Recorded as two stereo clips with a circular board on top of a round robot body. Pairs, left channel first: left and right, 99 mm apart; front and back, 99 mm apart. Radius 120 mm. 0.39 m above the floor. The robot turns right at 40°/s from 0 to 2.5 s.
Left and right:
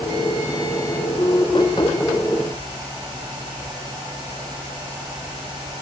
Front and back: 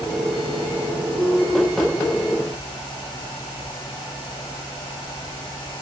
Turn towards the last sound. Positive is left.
No sound to turn to.